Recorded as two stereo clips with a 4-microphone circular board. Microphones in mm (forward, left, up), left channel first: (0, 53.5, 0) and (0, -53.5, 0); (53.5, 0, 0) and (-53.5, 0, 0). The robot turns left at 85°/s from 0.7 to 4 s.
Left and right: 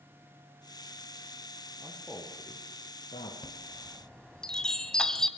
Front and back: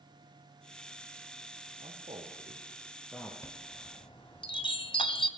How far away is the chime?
About 1.8 m.